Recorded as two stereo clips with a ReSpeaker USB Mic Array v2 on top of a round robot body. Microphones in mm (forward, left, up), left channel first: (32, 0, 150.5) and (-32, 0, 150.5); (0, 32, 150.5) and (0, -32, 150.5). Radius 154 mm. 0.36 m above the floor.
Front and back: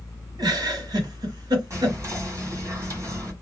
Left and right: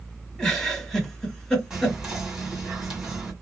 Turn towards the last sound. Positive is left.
turn(degrees=-175)